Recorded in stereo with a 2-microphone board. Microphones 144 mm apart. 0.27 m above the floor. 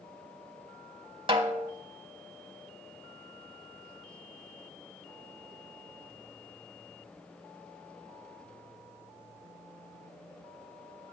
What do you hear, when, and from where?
1.3 s a snare drum: 35° right (ahead or behind), 0.9 m